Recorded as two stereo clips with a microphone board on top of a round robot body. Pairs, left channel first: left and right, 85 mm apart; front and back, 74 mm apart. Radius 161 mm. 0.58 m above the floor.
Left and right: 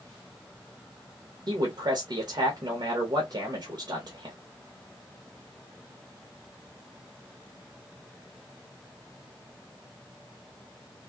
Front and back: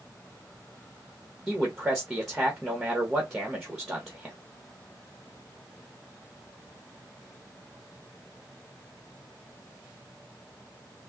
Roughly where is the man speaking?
Right.